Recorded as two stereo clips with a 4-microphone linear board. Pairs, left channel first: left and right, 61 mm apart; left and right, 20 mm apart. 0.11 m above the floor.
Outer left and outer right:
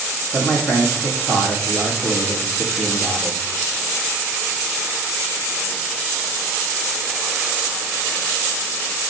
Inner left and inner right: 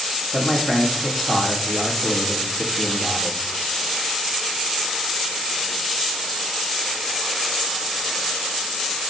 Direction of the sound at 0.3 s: Centre (ahead or behind).